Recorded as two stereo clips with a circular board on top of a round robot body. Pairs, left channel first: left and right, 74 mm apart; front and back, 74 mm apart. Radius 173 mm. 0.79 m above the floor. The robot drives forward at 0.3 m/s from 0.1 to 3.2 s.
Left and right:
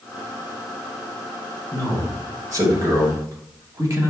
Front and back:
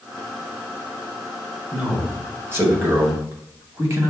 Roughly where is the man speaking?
Behind right.